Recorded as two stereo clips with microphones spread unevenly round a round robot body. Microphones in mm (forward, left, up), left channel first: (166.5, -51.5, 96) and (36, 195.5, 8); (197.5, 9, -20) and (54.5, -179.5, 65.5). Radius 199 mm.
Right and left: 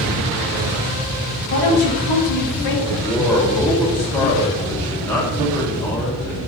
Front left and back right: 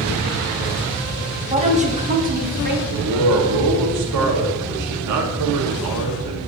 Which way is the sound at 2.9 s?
155° right.